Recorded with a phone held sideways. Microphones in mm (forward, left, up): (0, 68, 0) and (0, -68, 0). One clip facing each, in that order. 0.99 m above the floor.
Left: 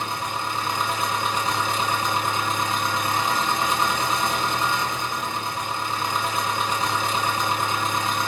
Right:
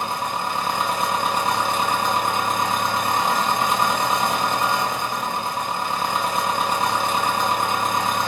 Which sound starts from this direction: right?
An engine running, at 0.0 s.